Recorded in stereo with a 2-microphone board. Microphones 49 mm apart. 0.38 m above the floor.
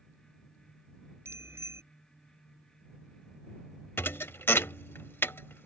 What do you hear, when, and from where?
1.2 s a bicycle bell: 65° right (ahead or behind)
4.0 s a thud: 50° left (ahead or behind)